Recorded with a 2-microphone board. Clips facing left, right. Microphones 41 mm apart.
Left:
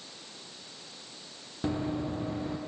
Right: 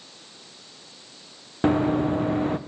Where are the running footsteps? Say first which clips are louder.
Right 11 dB; 50° right (ahead or behind), 2 m.